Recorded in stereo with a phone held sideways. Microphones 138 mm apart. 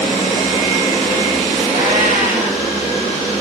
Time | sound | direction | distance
1.7 | a cat meowing | 80° right | 7 m